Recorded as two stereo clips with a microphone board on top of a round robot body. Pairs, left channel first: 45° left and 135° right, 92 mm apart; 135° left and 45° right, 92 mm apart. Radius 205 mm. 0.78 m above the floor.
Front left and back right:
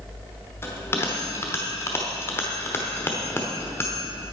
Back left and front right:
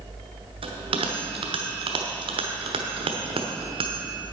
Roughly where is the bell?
Ahead.